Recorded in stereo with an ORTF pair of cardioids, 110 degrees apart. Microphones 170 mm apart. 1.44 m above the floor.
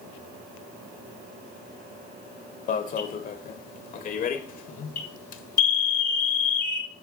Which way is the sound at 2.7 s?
55° left.